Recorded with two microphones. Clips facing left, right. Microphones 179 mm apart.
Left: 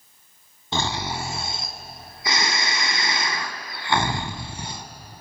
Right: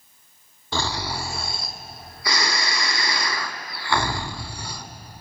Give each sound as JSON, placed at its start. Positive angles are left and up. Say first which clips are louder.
{"t": 0.7, "sound": "snoring", "louder": "left 1 dB", "side_deg": 20, "distance_m": 1.5}